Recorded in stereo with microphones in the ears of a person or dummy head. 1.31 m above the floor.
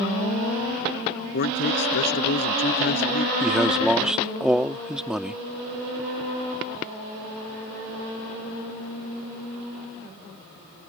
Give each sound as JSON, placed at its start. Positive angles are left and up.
{"t": 1.3, "sound": "a man speaking", "side_deg": 50}
{"t": 3.4, "sound": "a man speaking", "side_deg": -5}